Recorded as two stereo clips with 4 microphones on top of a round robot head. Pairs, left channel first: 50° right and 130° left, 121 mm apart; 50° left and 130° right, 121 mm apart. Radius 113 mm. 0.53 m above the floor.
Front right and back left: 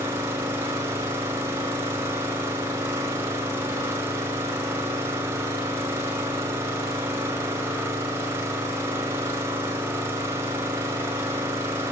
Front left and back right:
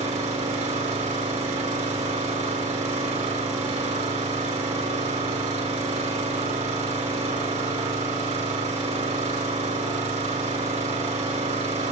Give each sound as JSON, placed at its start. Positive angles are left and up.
{"t": 0.0, "sound": "an engine running", "azimuth_deg": -160, "distance_m": 9.0}